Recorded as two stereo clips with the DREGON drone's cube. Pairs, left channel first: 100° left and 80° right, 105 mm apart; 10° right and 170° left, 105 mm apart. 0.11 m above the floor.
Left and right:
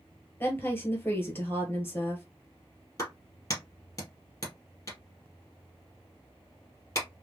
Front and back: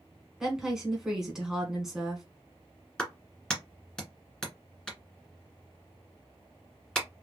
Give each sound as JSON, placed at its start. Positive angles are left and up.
{"t": 0.4, "sound": "a woman speaking", "azimuth_deg": 95, "distance_m": 1.2}
{"t": 3.0, "sound": "a clap", "azimuth_deg": 65, "distance_m": 1.7}